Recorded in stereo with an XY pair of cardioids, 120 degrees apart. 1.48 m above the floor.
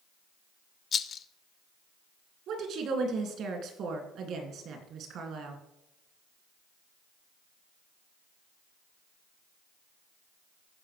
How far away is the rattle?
About 0.5 m.